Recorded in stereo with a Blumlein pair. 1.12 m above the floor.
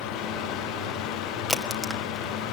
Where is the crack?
5° right, 1.7 m.